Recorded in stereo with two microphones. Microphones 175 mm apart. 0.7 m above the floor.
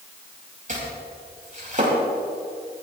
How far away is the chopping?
About 6.5 m.